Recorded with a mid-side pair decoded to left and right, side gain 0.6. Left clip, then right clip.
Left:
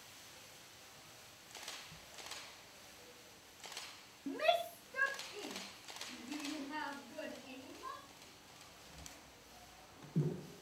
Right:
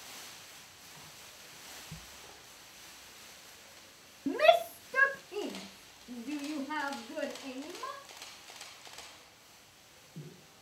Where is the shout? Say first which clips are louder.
Right 10 dB; 45° right, 0.5 m; by 8.1 s 65° right, 2.5 m.